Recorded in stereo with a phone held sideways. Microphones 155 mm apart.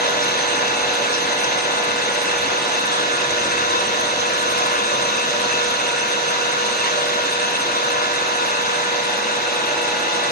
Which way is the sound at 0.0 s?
75° left (ahead or behind).